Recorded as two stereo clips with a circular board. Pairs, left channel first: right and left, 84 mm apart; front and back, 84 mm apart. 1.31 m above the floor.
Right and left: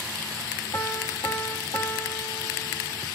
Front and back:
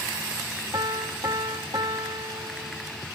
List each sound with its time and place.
0.7 s a piano: 140° right, 1.3 m